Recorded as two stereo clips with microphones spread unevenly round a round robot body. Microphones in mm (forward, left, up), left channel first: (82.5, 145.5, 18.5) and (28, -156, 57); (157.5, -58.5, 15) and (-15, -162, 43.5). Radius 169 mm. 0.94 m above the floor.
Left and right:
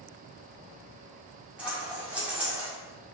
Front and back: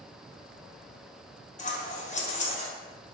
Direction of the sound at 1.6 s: 20° right.